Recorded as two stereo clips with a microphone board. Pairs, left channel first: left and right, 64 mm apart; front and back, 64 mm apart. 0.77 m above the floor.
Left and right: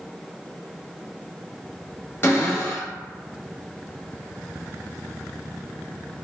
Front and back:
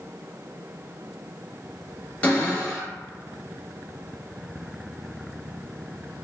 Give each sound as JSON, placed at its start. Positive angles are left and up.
{"t": 2.2, "sound": "a cupboard door", "azimuth_deg": 55, "distance_m": 0.9}